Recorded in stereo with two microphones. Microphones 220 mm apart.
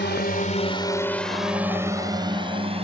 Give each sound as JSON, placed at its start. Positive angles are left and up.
{"t": 0.0, "sound": "a drone", "side_deg": 55}